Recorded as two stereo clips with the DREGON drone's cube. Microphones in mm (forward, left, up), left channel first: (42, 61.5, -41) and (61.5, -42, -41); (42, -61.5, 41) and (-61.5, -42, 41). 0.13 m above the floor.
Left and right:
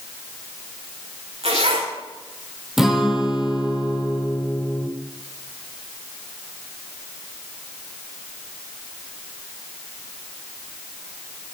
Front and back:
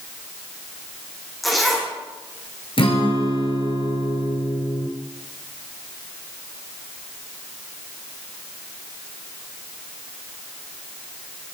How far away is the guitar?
About 2 m.